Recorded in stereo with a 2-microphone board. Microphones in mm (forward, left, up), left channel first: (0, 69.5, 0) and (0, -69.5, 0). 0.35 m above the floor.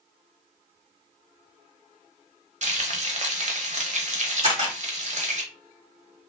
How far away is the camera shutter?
About 1.7 m.